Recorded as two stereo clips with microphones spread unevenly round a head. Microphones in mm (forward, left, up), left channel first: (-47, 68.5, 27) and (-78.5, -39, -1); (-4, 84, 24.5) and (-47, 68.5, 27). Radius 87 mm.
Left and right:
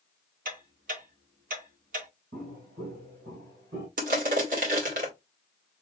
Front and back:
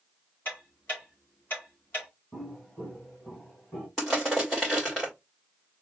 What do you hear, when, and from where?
0.5 s ticking: 60° right, 1.6 m
2.3 s footsteps: 65° right, 2.5 m; by 3.9 s 60° right, 4 m
4.0 s crushing: 70° right, 1.7 m